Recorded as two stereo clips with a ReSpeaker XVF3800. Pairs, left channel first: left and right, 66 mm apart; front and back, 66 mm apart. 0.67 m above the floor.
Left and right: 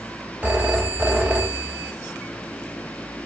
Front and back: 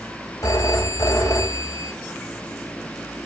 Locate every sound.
0.4 s a phone ringing: 25° right, 2.5 m